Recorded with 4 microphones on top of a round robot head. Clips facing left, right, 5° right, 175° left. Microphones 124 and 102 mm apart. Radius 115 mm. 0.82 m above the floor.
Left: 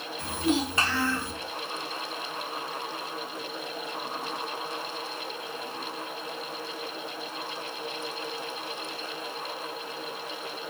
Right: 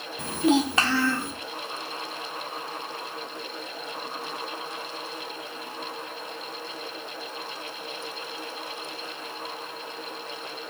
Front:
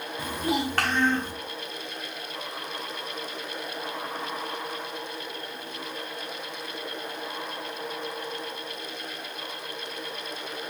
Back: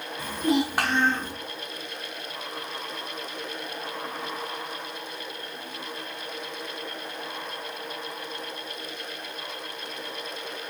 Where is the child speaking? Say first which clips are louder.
Right 5 dB, back 4 dB; 80° right, 0.8 m; by 1.3 s 135° right, 0.8 m.